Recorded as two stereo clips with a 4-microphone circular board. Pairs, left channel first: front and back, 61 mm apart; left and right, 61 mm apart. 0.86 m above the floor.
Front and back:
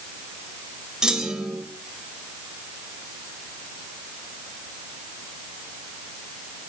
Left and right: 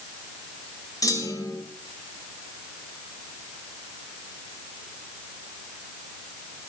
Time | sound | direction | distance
1.0 | a clunk | 100° left | 3.5 m